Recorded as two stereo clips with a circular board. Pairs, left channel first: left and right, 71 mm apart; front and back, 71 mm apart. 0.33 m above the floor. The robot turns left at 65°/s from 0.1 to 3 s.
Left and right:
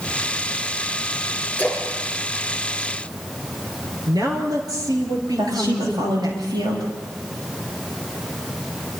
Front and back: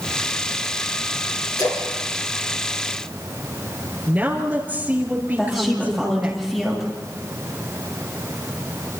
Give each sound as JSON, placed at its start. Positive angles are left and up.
{"t": 1.6, "sound": "a splash", "azimuth_deg": 25, "distance_m": 7.0}
{"t": 4.1, "sound": "a woman speaking", "azimuth_deg": -115, "distance_m": 5.5}
{"t": 5.4, "sound": "a woman speaking", "azimuth_deg": -85, "distance_m": 10.0}